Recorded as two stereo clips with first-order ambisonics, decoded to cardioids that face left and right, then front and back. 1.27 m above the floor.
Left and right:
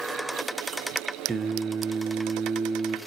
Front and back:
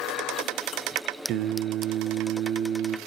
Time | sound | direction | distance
1.3 | singing | 165° right | 0.5 m